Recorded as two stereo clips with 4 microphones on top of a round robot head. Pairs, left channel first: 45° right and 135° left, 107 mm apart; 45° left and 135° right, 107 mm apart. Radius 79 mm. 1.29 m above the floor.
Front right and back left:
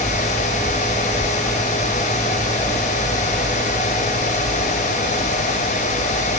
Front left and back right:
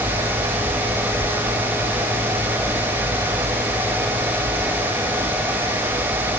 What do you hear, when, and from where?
Only background noise.